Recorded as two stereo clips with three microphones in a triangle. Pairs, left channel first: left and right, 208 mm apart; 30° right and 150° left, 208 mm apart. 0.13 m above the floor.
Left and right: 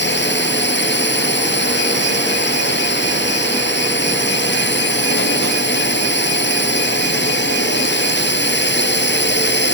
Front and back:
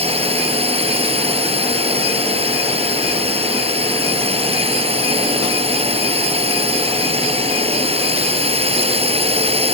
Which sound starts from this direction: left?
A drone, at 0.0 s.